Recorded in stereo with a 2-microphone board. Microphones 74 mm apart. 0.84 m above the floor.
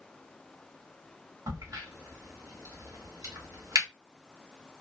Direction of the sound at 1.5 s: 50° right (ahead or behind).